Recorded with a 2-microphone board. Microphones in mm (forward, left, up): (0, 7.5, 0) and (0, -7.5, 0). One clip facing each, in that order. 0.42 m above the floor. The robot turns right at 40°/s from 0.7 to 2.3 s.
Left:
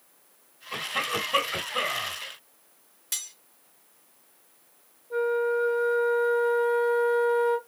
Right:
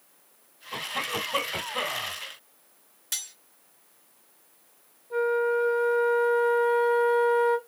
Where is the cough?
110° left, 1.9 m; by 2.1 s 165° left, 1.9 m.